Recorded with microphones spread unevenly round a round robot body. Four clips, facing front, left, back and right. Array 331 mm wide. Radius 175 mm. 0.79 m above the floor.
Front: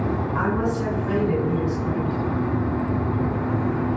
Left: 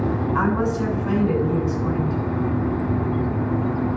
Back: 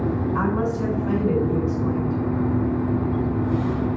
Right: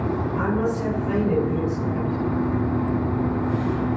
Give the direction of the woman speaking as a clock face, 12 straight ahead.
9 o'clock.